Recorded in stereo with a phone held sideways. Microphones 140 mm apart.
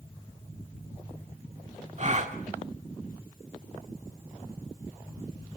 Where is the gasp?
50° right (ahead or behind), 1.6 m.